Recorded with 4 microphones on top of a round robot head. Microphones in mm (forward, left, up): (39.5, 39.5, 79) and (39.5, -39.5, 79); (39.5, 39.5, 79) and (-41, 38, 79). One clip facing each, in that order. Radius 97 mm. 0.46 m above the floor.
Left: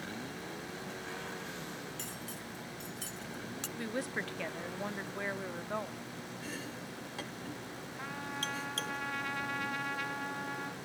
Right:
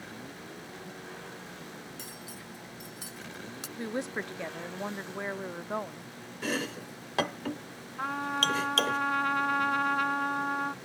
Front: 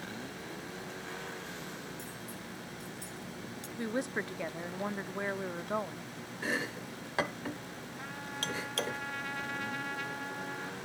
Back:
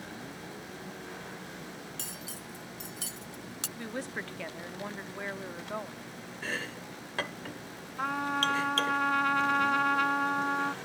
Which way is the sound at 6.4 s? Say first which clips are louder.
Right 13 dB, front 2 dB; 75° right.